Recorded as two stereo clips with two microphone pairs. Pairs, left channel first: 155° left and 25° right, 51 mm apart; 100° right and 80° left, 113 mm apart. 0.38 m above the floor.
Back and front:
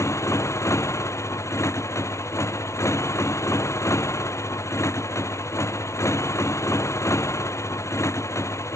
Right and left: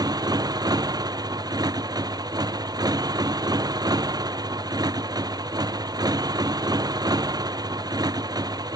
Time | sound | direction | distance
0.0 | a motorcycle | 135° left | ?